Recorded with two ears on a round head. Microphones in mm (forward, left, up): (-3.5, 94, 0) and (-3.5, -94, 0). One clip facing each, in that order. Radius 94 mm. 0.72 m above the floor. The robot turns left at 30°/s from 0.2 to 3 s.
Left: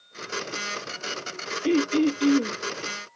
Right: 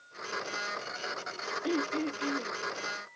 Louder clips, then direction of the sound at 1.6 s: Left 10 dB; 35° left (ahead or behind).